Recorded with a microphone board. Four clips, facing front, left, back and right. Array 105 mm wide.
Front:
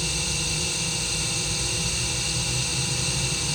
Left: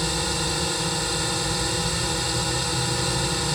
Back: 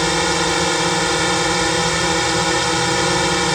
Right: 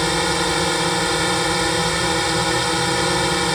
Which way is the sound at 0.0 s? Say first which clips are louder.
Right 8 dB, back 16 dB; 150° right.